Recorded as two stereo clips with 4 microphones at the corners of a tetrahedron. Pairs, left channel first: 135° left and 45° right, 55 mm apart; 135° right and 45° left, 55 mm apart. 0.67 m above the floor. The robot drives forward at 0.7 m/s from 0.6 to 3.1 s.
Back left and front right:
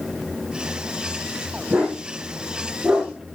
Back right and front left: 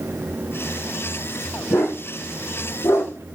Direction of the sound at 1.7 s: 110° right.